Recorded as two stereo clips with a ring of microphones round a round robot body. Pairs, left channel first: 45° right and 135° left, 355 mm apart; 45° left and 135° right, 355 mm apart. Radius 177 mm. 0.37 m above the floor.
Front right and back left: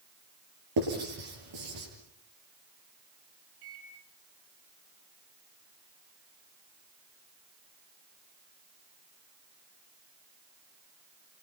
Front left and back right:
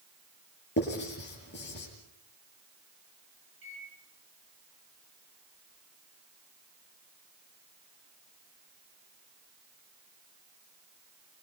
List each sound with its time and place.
0.8 s writing: 105° left, 8.5 m
3.6 s a microwave: 165° left, 7 m